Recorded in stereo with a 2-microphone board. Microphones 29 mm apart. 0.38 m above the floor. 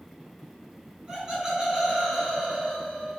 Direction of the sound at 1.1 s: 25° right (ahead or behind).